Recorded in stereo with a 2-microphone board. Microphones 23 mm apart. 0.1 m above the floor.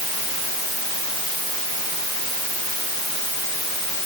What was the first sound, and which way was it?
Only background noise.